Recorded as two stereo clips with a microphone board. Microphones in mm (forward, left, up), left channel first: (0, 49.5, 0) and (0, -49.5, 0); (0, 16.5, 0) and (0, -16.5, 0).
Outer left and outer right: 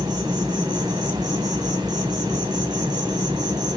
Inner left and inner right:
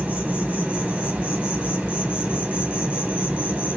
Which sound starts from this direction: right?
An insect, at 0.0 s.